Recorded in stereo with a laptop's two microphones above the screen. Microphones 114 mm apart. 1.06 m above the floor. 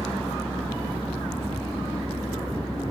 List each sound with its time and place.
0.0 s a fan: 15° left (ahead or behind), 5.5 m